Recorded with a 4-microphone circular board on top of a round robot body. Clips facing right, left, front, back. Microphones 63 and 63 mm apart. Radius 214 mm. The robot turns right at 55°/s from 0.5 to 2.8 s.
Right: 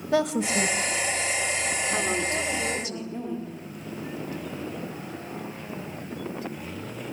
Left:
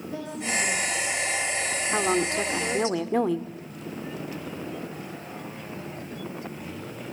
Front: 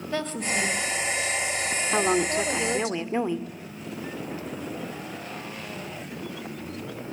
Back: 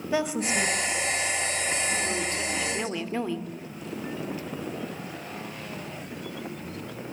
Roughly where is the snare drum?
I don't hear a snare drum.